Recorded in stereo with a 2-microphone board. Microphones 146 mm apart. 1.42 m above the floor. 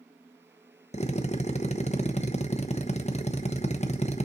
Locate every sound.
0.9 s a drill: 50° left (ahead or behind), 0.9 m